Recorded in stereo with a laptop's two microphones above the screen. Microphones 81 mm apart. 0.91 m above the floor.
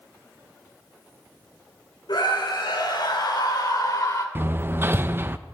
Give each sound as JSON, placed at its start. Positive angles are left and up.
{"t": 2.1, "sound": "a scream", "side_deg": 85, "distance_m": 2.5}
{"t": 4.3, "sound": "hammering", "side_deg": -30, "distance_m": 0.5}